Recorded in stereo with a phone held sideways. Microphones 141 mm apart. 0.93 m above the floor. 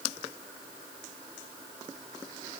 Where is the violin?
I don't hear a violin.